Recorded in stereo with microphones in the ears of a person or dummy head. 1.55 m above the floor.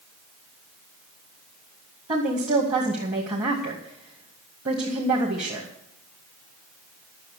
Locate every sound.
2.1 s a woman speaking: 30° right (ahead or behind), 2.0 m